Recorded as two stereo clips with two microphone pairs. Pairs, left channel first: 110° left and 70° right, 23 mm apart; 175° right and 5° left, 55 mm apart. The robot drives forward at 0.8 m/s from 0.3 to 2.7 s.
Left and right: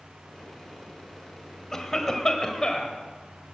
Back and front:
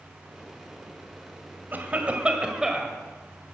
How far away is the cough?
About 1.9 m.